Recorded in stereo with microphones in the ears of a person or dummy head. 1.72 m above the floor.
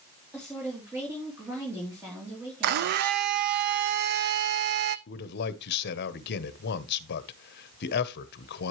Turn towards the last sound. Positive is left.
turn(degrees=55)  # may be behind; listen again after turning